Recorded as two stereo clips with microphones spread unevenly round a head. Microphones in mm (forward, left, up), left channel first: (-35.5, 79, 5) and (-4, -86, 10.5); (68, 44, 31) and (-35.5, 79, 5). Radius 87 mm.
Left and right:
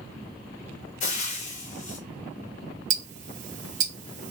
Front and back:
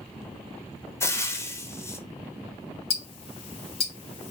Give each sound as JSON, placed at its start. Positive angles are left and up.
{"t": 1.0, "sound": "frying", "azimuth_deg": 50, "distance_m": 0.7}
{"t": 2.9, "sound": "ticking", "azimuth_deg": -35, "distance_m": 0.7}